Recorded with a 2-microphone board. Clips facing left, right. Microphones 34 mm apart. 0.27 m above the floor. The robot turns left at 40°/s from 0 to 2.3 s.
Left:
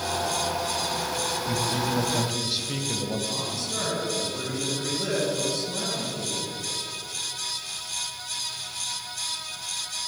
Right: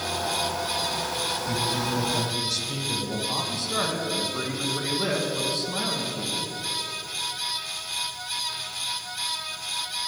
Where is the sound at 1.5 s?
5° left (ahead or behind), 1.2 m; by 3.2 s 20° left (ahead or behind), 1.2 m.